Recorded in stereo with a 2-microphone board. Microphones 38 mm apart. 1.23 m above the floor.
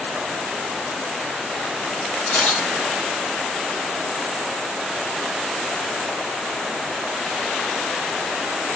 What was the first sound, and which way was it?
A camera shutter, 60° left (ahead or behind).